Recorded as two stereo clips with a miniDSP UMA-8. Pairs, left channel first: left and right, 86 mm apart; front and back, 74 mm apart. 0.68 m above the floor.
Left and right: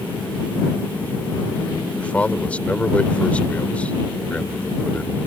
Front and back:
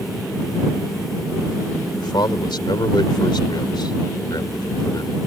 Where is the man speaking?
15° left.